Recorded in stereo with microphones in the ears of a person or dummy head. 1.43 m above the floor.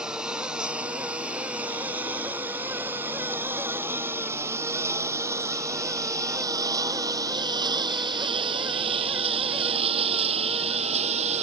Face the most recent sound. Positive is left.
turn(degrees=-30)  # may be behind; listen again after turning